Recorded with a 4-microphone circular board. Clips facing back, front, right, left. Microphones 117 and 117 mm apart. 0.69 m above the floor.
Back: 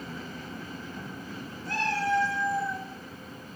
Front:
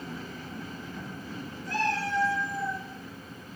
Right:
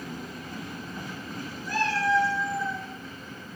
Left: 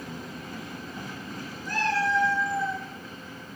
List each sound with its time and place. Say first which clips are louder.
1.6 s a cat meowing: back 1 dB, right 1 dB; 175° right, 3 m; by 2.8 s 165° right, 4.5 m